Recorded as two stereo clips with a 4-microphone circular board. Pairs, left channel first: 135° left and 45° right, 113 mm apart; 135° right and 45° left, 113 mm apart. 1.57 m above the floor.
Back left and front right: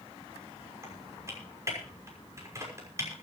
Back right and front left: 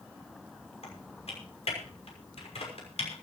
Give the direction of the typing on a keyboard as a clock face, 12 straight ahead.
4 o'clock.